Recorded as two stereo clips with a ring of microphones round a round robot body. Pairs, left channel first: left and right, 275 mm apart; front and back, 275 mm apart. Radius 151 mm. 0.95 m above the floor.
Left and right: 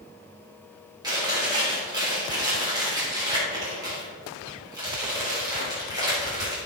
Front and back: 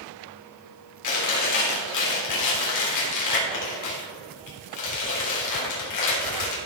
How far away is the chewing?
About 3.5 m.